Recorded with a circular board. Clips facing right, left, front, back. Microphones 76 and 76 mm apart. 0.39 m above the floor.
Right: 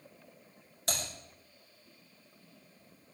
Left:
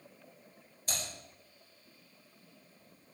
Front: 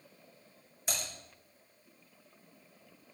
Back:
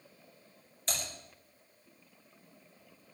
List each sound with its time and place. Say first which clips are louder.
0.9 s typing on a keyboard: right 4 dB, even; 80° right, 4.5 m